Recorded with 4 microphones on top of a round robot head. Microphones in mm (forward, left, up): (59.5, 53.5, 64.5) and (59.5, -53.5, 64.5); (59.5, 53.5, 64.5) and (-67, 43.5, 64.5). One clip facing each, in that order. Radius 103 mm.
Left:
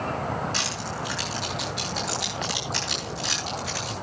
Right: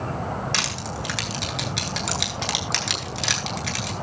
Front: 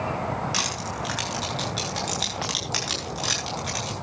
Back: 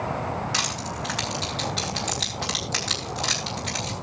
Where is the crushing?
80° right, 8.5 m.